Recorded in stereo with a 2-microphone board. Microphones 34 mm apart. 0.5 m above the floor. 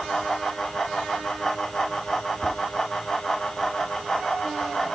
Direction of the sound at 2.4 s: 65° right (ahead or behind).